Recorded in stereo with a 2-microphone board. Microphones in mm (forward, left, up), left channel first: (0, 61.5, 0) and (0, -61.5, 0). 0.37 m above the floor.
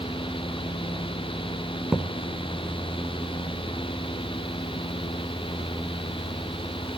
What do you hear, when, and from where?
1.9 s a thud: 5° right (ahead or behind), 1.8 m